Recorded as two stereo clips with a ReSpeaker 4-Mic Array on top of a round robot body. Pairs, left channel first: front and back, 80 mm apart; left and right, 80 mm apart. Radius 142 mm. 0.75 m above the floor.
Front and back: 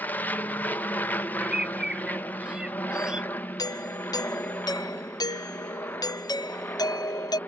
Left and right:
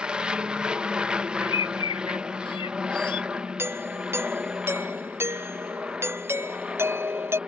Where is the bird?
100° left.